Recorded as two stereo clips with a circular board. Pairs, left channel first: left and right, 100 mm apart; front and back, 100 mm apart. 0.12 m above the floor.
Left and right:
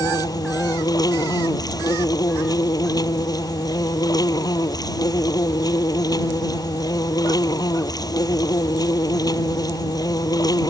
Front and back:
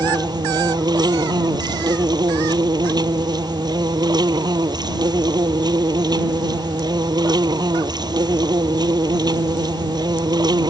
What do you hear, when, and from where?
0.0 s an insect: 140° left